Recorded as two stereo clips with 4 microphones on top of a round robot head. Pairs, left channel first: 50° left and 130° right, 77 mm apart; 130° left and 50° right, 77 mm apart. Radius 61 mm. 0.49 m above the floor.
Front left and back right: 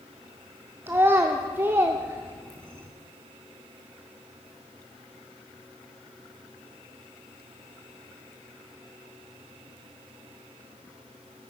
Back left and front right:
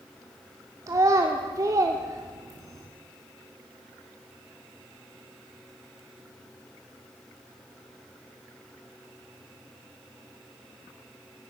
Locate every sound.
0.9 s a child speaking: 80° right, 0.7 m